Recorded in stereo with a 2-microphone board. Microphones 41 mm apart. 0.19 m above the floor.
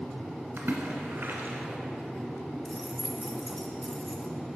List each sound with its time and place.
0.6 s a splash: 60° right (ahead or behind), 1.0 m
2.6 s keys jangling: 5° left (ahead or behind), 0.7 m